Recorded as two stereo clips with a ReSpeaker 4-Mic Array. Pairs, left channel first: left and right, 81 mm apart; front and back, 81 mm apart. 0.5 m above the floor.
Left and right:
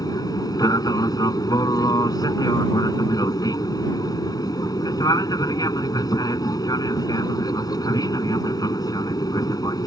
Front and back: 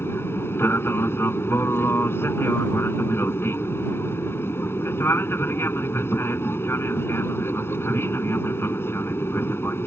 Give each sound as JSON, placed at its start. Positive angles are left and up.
{"t": 0.0, "sound": "an aircraft", "azimuth_deg": 60}